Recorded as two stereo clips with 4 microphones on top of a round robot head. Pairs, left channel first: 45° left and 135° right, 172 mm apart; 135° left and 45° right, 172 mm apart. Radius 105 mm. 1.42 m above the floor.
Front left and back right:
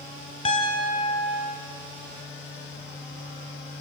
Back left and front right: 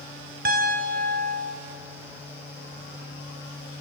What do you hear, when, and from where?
0.5 s a piano: 10° right, 1.7 m